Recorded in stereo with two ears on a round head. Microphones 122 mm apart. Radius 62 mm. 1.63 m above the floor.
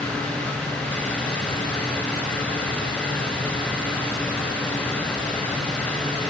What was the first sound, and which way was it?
Only background noise.